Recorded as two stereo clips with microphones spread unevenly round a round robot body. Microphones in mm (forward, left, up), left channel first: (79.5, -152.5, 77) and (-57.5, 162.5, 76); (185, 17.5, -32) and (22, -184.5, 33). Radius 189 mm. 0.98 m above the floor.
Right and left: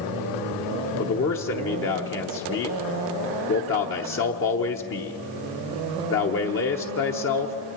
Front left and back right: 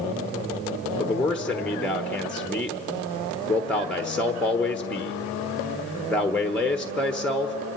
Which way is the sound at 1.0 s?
25° right.